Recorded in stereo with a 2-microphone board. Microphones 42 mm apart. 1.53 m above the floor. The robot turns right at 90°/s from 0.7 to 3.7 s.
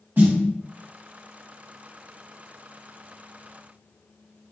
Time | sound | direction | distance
0.2 | a snare drum | 55° right (ahead or behind) | 1.0 m